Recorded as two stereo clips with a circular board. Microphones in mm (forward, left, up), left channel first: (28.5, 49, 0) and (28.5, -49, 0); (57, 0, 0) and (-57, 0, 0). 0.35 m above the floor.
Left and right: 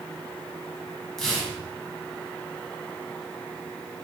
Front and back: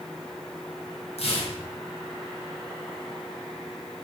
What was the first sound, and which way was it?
Tearing paper, 5° left.